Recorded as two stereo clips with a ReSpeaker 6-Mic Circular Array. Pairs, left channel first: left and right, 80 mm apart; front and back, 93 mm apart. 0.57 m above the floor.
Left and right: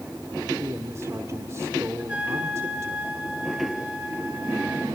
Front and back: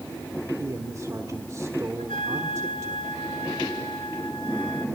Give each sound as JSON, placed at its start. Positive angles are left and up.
{"t": 0.6, "sound": "a man speaking", "azimuth_deg": -130, "distance_m": 1.4}
{"t": 2.0, "sound": "a trumpet", "azimuth_deg": -15, "distance_m": 2.5}